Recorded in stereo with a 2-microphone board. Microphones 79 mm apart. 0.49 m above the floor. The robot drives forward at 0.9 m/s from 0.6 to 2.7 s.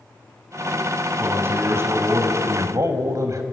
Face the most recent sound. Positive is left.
turn(degrees=-45)  # may be behind; listen again after turning